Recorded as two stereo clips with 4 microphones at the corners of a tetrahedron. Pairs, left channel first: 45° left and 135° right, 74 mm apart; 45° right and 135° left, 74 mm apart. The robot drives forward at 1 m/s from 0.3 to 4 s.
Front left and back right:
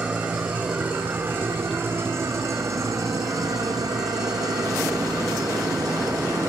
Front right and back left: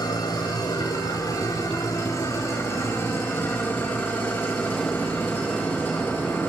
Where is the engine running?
60° right, 5.5 m; by 6.5 s 105° right, 5 m.